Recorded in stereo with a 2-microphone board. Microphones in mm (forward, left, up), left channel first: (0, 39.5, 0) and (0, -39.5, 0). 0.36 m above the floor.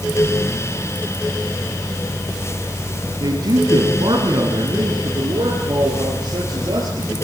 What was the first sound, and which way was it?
A man speaking, 65° right (ahead or behind).